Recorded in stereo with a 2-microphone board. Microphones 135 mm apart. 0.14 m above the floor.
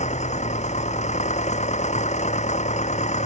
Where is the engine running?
60° left (ahead or behind).